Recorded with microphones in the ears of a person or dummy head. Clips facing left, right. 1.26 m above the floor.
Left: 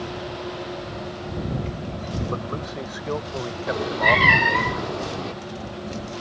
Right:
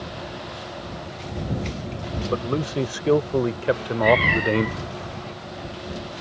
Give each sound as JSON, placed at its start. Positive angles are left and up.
{"t": 2.3, "sound": "a man speaking", "side_deg": -40}
{"t": 3.7, "sound": "a cat meowing", "side_deg": 60}